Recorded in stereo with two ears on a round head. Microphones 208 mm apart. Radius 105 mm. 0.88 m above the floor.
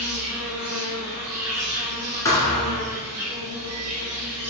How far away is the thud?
About 1.3 m.